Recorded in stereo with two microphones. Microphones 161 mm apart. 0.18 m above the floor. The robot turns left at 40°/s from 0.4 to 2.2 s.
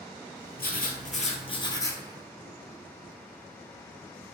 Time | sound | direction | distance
0.6 | writing | 70° left | 0.8 m